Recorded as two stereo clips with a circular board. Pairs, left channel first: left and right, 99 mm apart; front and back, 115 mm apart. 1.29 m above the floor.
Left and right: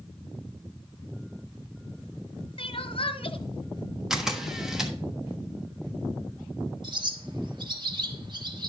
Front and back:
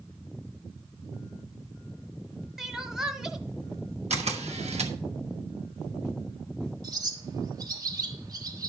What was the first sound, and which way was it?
Crying, 95° left.